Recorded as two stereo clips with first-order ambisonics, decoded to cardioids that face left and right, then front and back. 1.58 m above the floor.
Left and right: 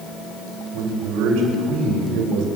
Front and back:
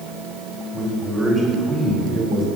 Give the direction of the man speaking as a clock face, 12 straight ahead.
3 o'clock.